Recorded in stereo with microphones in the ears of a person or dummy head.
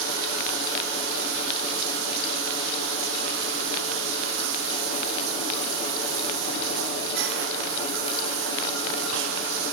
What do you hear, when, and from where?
0.0 s running water: 65° right (ahead or behind), 0.8 m